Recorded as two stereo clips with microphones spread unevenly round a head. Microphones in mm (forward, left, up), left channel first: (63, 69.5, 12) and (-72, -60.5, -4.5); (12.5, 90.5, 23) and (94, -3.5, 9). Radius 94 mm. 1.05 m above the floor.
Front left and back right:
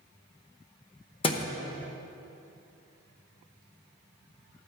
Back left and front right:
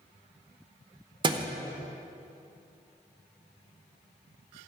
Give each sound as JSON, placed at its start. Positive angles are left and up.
{"t": 1.2, "sound": "a thud", "azimuth_deg": -5, "distance_m": 0.9}